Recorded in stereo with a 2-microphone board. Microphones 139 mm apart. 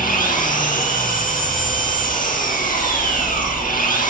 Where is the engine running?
75° left (ahead or behind), 9 m.